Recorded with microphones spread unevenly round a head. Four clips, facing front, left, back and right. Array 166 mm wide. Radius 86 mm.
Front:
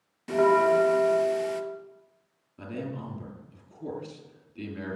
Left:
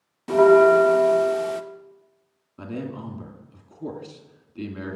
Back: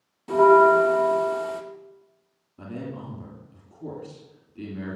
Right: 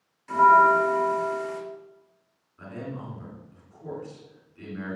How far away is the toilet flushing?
No toilet flushing in this recording.